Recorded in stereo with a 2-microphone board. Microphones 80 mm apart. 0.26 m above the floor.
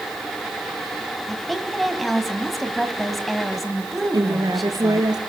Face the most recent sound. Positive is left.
turn(degrees=-55)  # may be behind; listen again after turning